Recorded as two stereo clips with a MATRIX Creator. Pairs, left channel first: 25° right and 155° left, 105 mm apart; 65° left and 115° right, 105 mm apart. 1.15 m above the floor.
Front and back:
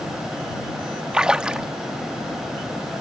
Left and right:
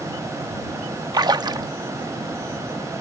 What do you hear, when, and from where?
1.1 s a splash: 125° right